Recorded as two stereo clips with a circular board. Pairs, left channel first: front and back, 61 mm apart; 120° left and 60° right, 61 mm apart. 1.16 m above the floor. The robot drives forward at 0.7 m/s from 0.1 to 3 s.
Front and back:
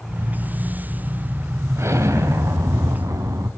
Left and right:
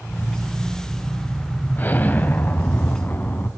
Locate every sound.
1.8 s an explosion: 170° left, 1.3 m; by 3.5 s 175° left, 2 m